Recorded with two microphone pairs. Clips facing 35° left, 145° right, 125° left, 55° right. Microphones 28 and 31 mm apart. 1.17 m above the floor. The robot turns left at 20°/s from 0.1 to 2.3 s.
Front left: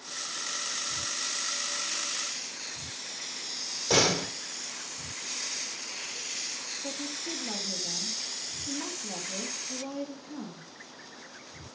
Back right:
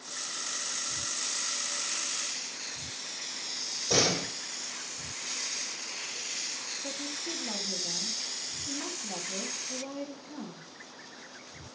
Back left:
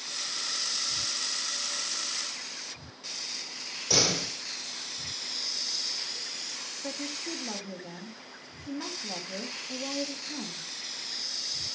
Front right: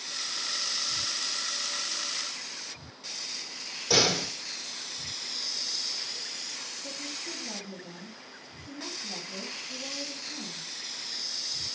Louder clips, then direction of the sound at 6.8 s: Front left 2 dB, back left 5 dB; 115° left.